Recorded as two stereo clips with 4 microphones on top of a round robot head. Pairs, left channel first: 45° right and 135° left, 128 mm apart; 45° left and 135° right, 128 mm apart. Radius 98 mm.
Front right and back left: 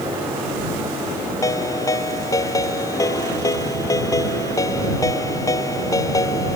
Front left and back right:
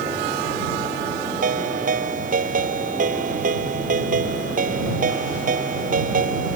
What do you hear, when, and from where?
1.4 s a ringtone: 110° right